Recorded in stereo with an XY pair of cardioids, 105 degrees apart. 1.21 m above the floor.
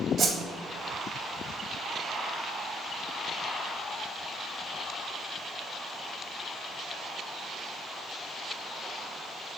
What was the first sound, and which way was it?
A whoosh, 55° right.